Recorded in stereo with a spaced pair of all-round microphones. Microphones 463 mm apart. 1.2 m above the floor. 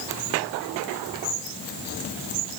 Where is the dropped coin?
No dropped coin in this recording.